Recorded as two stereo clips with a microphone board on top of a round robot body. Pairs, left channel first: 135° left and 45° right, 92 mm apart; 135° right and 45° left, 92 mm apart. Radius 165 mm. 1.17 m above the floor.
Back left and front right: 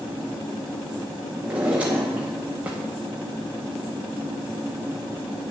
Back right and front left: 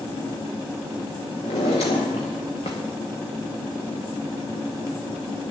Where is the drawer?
120° right, 0.6 m.